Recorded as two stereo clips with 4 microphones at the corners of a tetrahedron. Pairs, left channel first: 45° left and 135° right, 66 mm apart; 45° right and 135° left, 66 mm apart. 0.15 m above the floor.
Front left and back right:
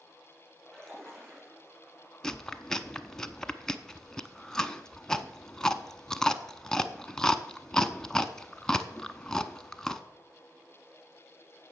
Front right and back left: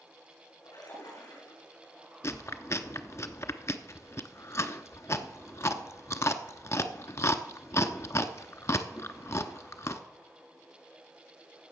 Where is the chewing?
35° right, 0.7 m.